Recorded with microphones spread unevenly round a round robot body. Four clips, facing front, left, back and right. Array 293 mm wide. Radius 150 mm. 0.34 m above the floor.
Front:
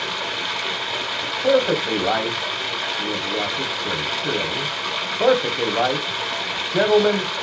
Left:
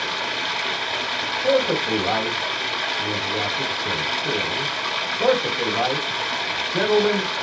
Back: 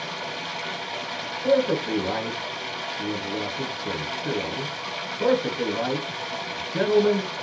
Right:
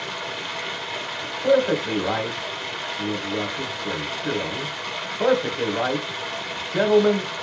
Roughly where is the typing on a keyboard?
No typing on a keyboard in this recording.